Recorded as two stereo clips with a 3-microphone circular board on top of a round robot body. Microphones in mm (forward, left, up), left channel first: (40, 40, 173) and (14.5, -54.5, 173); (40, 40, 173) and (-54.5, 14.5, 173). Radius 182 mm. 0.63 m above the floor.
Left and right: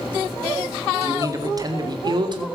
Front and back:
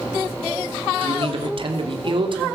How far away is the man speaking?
About 2.5 m.